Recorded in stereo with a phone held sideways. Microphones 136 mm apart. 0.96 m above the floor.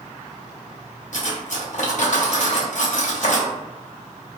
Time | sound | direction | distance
1.1 | cutlery clinking | 65° left (ahead or behind) | 0.7 m